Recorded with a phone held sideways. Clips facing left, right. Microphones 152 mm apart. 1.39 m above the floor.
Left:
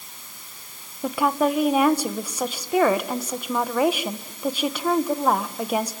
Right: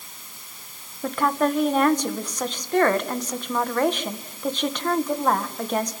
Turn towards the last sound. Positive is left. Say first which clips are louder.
# left 1 dB
turn(degrees=10)  # may be behind; listen again after turning